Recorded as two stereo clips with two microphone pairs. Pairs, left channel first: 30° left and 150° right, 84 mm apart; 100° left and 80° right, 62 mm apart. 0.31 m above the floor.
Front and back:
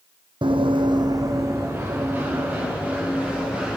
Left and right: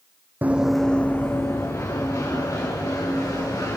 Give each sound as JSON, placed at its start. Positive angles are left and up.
{"t": 0.4, "sound": "running footsteps", "azimuth_deg": -140, "distance_m": 0.9}